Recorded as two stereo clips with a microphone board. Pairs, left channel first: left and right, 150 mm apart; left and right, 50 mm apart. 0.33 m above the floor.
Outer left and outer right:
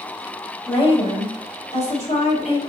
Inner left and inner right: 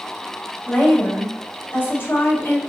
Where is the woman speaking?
35° left (ahead or behind), 2.0 m; by 2.6 s 50° left (ahead or behind), 2 m.